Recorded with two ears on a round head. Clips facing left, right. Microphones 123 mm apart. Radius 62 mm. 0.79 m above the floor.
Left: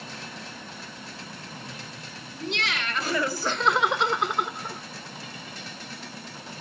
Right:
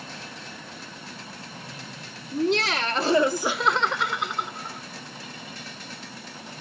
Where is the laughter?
35° right (ahead or behind), 1.7 m; by 4.8 s 65° left (ahead or behind), 0.9 m.